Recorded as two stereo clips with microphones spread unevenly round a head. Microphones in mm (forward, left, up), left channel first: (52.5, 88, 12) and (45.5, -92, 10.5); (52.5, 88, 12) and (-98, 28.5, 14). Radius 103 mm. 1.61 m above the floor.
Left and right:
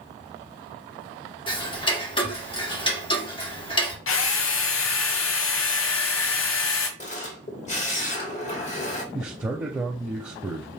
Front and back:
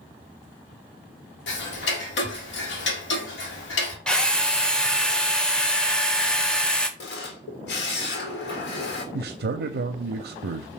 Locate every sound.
1.5 s ticking: 25° left, 1.5 m
4.1 s a drill: 105° left, 0.8 m
7.0 s a camera shutter: 35° left, 1.7 m
9.1 s a man speaking: 175° right, 0.5 m